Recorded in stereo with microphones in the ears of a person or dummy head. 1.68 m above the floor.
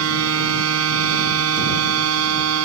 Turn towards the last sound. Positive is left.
turn(degrees=-80)